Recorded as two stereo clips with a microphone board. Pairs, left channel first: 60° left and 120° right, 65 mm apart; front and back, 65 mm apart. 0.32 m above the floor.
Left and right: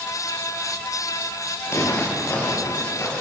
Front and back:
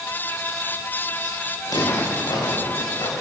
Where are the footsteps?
15° left, 9.5 m; by 3.1 s 5° left, 9.5 m.